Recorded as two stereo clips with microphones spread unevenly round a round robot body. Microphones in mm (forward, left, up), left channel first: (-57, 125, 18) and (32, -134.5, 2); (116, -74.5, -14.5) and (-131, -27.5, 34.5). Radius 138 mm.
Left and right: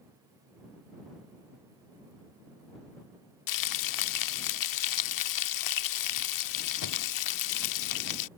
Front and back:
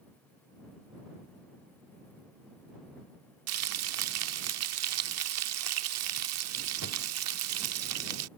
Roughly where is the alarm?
I don't hear an alarm.